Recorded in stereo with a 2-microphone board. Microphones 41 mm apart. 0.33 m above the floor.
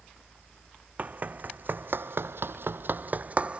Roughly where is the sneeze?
I don't hear a sneeze.